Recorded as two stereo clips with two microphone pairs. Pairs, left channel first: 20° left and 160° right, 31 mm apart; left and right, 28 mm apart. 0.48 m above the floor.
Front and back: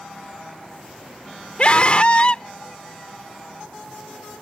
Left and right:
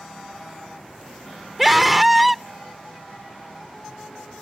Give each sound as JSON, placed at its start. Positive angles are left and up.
{"t": 1.6, "sound": "a scream", "azimuth_deg": -5}